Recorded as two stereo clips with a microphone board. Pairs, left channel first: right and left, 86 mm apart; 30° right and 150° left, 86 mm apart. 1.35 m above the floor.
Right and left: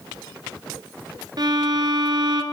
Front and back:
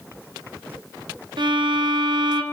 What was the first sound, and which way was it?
A violin, 125° left.